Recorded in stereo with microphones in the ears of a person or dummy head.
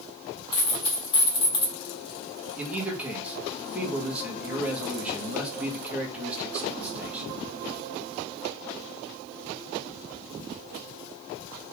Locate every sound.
0.5 s a dropped coin: 25° left (ahead or behind), 1.2 m
2.6 s a man speaking: 10° right (ahead or behind), 1.1 m